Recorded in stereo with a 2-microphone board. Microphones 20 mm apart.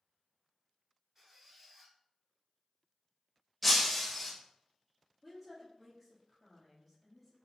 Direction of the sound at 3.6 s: 5° left (ahead or behind).